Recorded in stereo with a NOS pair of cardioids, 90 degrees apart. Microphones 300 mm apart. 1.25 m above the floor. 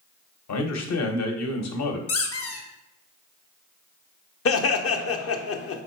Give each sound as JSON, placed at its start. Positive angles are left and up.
{"t": 0.5, "sound": "a man speaking", "azimuth_deg": 60, "distance_m": 1.1}
{"t": 2.1, "sound": "a squeak", "azimuth_deg": 50, "distance_m": 1.1}
{"t": 4.5, "sound": "laughter", "azimuth_deg": 50, "distance_m": 0.9}